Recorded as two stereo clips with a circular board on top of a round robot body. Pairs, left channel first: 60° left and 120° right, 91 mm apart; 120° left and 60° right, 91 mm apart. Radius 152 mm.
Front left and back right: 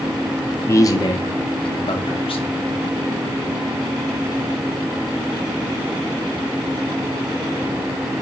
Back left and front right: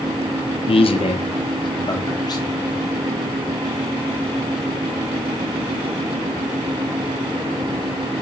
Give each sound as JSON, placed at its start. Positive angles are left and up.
{"t": 0.7, "sound": "a man speaking", "azimuth_deg": 120, "distance_m": 0.6}